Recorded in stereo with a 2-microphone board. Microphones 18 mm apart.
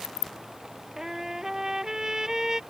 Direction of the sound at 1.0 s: 30° right (ahead or behind).